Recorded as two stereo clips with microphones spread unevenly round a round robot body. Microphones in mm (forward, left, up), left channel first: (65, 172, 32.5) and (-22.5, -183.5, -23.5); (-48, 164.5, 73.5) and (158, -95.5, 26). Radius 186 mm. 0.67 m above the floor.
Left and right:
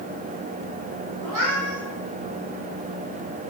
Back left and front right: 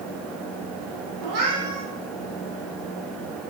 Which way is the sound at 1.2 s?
65° right.